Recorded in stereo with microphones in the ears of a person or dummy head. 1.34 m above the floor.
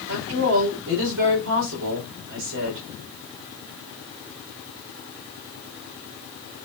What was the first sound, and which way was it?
A woman speaking, 75° right (ahead or behind).